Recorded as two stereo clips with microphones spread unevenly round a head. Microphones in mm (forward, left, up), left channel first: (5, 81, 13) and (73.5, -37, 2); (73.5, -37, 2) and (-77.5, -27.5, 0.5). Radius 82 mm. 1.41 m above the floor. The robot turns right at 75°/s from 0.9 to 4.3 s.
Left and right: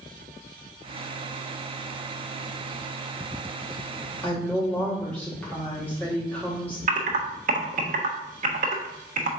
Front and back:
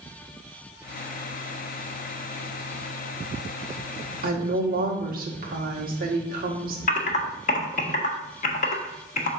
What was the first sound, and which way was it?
A woman speaking, 160° right.